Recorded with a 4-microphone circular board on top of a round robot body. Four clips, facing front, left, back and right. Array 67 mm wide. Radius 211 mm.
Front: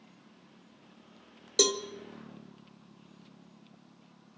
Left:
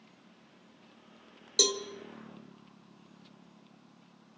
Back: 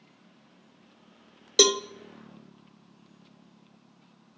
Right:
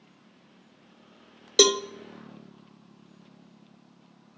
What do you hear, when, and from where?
1.6 s a cowbell: 125° right, 0.8 m